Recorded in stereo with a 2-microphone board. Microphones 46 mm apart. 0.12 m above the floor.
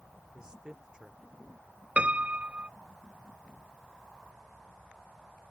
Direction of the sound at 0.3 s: 15° right (ahead or behind).